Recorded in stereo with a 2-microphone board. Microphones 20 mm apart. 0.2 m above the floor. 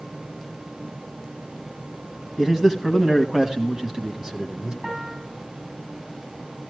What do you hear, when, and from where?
2.4 s a man speaking: 25° right (ahead or behind), 1.7 m; by 4.7 s 30° right (ahead or behind), 1.8 m
4.8 s a piano: 25° right (ahead or behind), 9.5 m